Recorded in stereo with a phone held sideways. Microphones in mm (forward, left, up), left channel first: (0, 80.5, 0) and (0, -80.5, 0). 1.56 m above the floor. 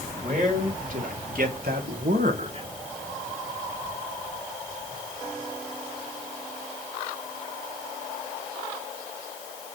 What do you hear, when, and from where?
0.2 s a man speaking: 55° right (ahead or behind), 3 m; by 2.7 s 35° right (ahead or behind), 1.2 m